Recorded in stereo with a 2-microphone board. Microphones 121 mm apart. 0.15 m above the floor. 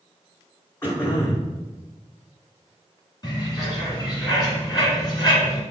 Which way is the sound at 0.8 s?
20° left (ahead or behind).